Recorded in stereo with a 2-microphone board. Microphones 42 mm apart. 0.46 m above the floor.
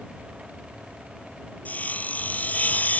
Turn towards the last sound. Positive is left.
turn(degrees=40)  # may be behind; listen again after turning